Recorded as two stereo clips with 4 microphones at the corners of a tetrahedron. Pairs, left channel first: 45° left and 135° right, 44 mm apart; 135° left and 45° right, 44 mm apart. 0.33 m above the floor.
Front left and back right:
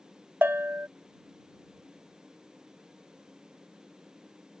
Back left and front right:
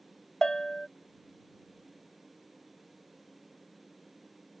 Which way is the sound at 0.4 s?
155° right.